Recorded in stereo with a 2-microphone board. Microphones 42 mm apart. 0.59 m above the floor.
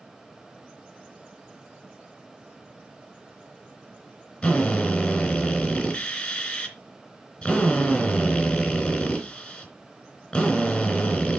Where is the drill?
20° left (ahead or behind), 3 m.